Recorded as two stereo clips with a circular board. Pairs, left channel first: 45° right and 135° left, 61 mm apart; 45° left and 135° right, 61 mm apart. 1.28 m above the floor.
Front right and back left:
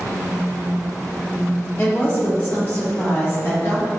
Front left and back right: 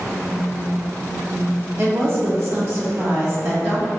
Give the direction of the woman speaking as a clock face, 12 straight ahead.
3 o'clock.